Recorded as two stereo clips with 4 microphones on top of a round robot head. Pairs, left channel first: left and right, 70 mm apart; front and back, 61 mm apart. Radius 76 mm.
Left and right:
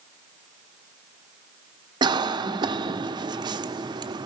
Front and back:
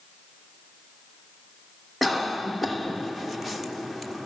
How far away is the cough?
About 1.4 m.